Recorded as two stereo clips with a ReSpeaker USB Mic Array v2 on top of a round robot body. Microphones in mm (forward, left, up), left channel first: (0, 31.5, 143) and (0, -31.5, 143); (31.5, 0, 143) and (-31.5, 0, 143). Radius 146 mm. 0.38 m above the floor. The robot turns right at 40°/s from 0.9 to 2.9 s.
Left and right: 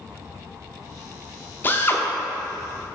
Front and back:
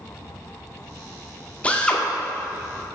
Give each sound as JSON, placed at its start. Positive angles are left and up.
{"t": 1.6, "sound": "a drill", "azimuth_deg": 55, "distance_m": 1.3}